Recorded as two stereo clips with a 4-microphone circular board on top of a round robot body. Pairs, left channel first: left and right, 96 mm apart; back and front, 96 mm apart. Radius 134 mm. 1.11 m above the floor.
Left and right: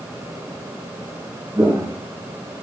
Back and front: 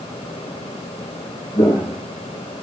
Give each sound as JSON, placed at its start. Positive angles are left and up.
{"t": 1.6, "sound": "footsteps", "azimuth_deg": -150, "distance_m": 1.9}